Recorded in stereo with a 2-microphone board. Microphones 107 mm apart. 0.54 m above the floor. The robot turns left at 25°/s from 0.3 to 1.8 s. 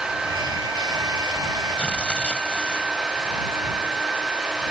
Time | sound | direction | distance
1.8 | tearing paper | 10° left (ahead or behind) | ?